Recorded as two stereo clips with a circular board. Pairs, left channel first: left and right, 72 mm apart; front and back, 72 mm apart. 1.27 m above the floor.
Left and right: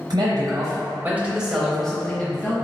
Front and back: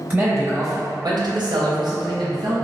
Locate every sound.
0.1 s a man speaking: 120° right, 1.0 m; by 2.5 s 155° left, 1.2 m